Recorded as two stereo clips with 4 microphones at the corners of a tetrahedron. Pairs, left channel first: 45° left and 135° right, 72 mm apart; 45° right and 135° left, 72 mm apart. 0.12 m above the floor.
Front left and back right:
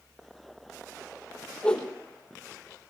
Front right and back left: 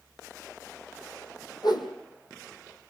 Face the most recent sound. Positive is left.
turn(degrees=-30)